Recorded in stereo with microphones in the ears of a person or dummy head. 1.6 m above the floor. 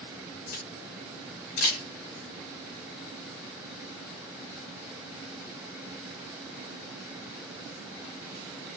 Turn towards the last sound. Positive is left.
turn(degrees=60)  # may be behind; listen again after turning